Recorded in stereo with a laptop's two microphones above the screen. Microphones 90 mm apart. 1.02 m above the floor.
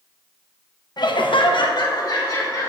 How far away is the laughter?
About 1.0 m.